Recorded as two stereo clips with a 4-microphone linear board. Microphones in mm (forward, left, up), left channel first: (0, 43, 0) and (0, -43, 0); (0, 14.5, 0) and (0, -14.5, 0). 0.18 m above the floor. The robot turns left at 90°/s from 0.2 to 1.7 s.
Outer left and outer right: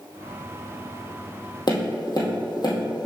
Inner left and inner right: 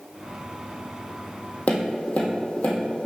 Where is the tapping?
55° left (ahead or behind), 2 m.